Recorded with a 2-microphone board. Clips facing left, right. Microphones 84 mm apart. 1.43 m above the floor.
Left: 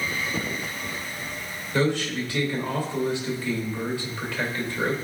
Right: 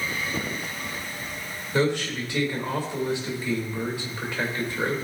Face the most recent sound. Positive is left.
turn(degrees=-20)  # may be behind; listen again after turning